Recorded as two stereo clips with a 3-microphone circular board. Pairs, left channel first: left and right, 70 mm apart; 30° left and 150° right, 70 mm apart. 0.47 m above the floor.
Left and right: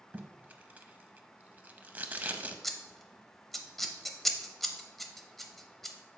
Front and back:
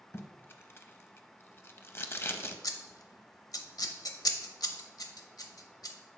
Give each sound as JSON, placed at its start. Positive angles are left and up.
{"t": 0.1, "sound": "tape being pulled", "azimuth_deg": -25, "distance_m": 0.6}
{"t": 2.6, "sound": "scissors", "azimuth_deg": 5, "distance_m": 0.8}